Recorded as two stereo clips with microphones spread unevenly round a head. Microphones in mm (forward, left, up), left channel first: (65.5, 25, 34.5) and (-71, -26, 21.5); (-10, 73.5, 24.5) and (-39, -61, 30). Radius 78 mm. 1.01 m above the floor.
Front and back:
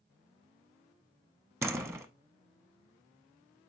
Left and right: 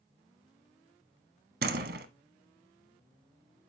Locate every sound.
1.6 s a door slam: 85° right, 1.1 m